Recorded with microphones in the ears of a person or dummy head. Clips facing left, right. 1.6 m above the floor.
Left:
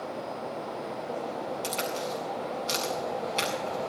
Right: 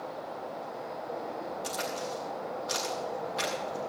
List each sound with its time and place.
1.6 s a crack: 40° left (ahead or behind), 8 m